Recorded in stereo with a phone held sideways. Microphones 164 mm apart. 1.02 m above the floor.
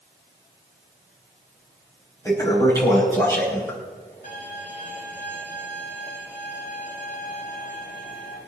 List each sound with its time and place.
2.2 s a toilet flushing: 15° left (ahead or behind), 5.5 m
4.2 s a violin: 50° left (ahead or behind), 7 m